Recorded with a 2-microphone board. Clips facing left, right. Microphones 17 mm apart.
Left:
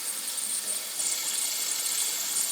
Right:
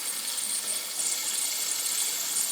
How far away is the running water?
About 0.8 m.